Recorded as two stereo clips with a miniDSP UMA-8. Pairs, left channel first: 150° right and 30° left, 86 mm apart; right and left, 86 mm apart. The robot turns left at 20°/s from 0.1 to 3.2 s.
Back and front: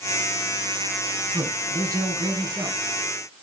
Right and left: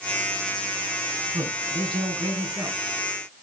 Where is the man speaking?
85° left, 6 m; by 2.8 s 55° left, 6 m.